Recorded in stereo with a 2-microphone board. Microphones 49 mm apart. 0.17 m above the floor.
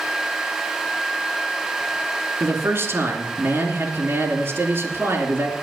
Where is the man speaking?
55° right (ahead or behind), 2.5 m.